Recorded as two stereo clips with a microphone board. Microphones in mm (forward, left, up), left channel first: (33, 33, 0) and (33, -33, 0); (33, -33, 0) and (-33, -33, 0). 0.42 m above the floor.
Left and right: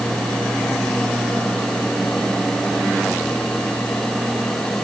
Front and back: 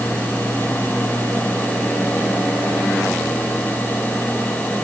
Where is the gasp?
No gasp in this recording.